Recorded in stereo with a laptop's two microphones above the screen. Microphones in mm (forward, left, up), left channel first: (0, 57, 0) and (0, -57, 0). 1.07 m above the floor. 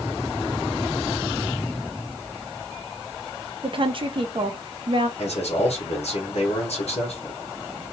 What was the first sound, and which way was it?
A woman speaking, 50° right (ahead or behind).